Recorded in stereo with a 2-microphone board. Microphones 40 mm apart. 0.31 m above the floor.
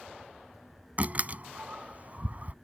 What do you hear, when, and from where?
1.0 s a door slam: 40° right (ahead or behind)